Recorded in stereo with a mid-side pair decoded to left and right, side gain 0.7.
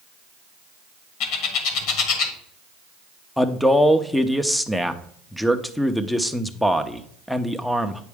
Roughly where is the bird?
Ahead left.